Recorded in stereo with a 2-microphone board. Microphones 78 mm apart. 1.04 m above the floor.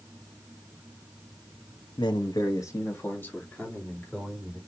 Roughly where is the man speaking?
Left.